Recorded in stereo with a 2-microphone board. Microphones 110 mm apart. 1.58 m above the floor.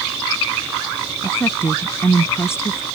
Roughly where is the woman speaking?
Left.